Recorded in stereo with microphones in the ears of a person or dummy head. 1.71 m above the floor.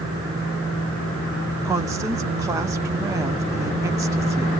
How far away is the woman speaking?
About 1.3 m.